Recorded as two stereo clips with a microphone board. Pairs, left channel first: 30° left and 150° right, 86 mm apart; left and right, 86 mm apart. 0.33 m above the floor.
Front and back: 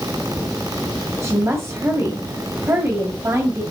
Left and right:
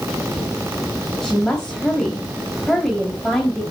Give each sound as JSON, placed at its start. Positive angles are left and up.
{"t": 1.2, "sound": "a woman speaking", "azimuth_deg": 170, "distance_m": 2.0}